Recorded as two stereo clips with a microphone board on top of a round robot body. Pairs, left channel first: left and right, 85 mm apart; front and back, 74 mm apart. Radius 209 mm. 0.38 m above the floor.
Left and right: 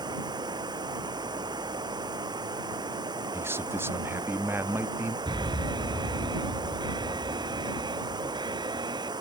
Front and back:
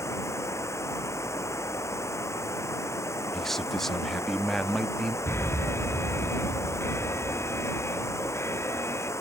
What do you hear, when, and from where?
0.0 s running water: 50° right
3.3 s a man speaking: 80° right
5.3 s an alarm: 55° right